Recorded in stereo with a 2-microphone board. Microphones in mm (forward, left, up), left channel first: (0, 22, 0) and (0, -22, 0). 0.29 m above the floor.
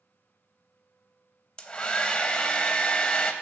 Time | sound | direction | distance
1.6 | a hair dryer | 20° left (ahead or behind) | 0.6 m